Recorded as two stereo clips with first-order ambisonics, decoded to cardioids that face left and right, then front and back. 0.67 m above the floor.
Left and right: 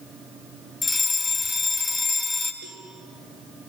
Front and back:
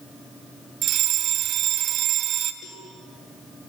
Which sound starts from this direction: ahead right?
A cowbell, at 2.6 s.